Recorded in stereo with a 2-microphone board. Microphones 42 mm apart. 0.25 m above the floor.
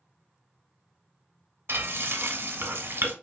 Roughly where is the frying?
Right.